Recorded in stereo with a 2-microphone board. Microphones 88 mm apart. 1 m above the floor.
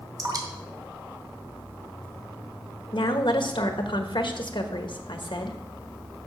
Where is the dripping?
45° right (ahead or behind), 1.7 m.